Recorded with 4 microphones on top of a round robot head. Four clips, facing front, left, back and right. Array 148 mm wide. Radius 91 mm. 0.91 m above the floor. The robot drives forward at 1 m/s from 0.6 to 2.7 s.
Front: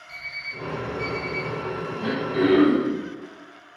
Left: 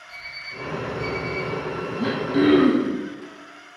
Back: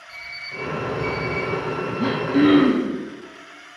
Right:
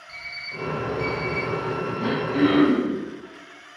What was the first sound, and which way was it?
An alarm clock, 50° right.